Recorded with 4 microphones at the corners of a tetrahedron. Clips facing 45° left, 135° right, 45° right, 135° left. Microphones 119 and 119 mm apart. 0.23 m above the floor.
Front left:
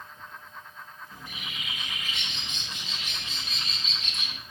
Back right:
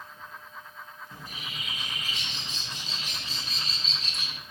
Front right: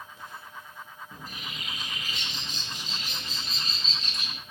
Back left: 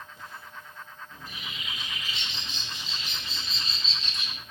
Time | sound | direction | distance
1.1 | a bird | 85° right | 0.7 m